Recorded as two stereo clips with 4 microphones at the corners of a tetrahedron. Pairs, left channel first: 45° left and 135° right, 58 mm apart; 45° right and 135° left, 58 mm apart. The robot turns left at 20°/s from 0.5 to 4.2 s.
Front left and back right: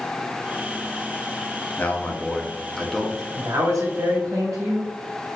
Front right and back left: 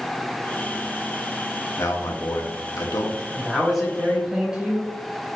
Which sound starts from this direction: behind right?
A man speaking, at 3.4 s.